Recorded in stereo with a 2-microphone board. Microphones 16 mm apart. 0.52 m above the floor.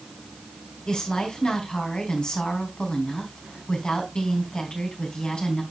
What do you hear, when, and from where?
0.9 s a woman speaking: 60° left (ahead or behind), 3.5 m